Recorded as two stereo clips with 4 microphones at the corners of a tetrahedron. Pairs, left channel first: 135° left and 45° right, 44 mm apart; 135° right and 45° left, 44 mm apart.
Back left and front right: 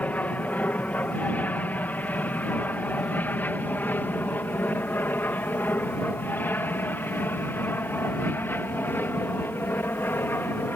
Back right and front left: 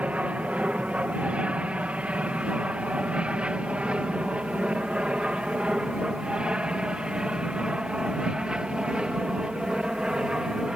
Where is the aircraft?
95° left; by 10.8 s 115° left.